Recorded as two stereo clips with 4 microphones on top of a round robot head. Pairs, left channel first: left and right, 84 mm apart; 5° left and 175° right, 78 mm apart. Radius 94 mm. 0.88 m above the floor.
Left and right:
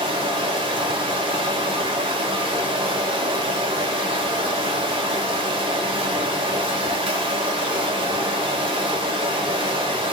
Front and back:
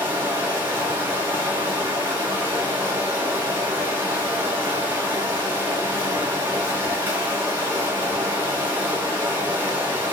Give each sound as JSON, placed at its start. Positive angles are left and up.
{"t": 0.0, "sound": "running water", "azimuth_deg": -110, "distance_m": 4.0}